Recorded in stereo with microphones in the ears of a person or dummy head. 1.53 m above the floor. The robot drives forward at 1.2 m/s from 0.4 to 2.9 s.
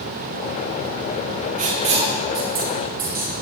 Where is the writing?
45° right (ahead or behind), 1.6 m; by 3.3 s 20° right (ahead or behind), 3 m.